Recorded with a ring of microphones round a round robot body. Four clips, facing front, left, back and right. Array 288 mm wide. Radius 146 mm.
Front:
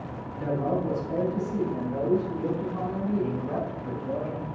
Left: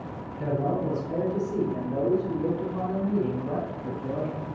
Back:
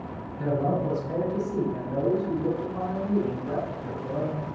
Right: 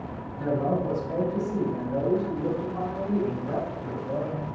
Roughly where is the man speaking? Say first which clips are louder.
Right 1 dB, back 1 dB; behind left.